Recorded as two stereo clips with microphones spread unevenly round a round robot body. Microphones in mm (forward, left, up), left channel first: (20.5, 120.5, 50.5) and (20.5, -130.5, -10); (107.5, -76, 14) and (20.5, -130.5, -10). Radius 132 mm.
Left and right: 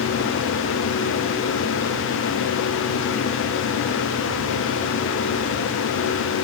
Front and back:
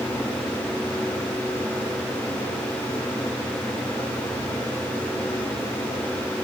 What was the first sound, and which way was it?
Only background noise.